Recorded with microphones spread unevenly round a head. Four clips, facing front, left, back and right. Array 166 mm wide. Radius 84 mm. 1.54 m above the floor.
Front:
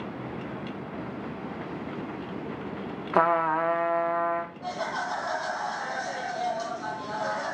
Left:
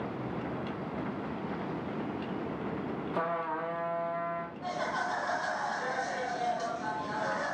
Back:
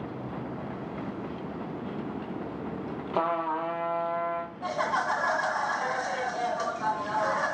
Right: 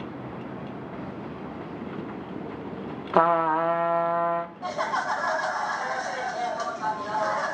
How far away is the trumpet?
About 0.5 m.